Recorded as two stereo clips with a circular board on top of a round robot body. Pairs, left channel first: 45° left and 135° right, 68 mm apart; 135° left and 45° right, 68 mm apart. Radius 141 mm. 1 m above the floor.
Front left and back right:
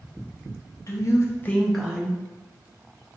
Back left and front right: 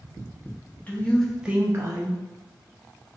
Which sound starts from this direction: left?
A woman speaking, at 0.9 s.